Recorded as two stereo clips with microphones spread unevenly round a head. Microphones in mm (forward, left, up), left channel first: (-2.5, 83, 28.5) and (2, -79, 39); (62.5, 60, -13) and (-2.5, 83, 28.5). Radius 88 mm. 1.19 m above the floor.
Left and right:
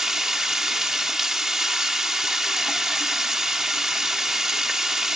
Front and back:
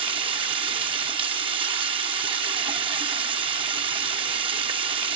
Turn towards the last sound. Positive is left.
turn(degrees=-175)